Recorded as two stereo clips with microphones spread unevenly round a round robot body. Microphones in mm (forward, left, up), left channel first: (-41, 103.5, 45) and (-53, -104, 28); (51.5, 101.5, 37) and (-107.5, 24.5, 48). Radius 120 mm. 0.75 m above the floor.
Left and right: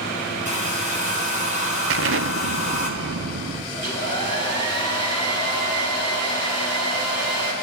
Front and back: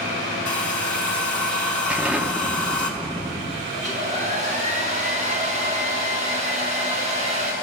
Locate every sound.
0.5 s a hair dryer: 30° right, 3 m
1.9 s an explosion: 70° right, 0.8 m
3.7 s a hair dryer: 95° right, 5.5 m